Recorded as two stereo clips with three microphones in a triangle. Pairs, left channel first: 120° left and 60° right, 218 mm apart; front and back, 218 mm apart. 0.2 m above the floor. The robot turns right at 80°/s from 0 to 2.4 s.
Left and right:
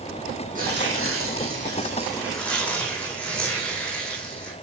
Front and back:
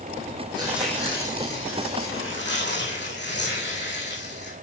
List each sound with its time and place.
0.6 s tearing paper: 115° right, 4 m; by 4.5 s 35° left, 4 m